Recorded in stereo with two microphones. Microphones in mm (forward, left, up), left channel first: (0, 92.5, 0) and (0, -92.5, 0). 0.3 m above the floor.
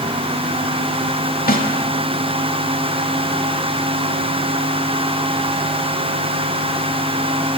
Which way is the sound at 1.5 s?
50° left (ahead or behind).